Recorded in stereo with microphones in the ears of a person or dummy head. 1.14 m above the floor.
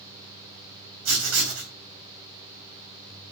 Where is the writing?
80° right, 3 m.